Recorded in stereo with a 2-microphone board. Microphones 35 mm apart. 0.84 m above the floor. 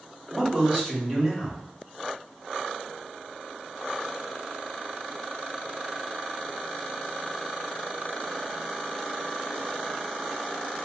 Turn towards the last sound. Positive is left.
turn(degrees=-10)  # may be behind; listen again after turning